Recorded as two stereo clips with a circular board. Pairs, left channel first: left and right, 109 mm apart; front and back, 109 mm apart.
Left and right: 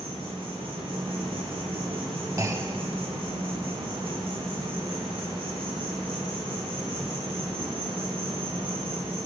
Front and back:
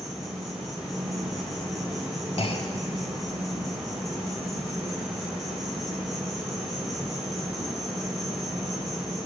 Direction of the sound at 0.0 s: 90° right.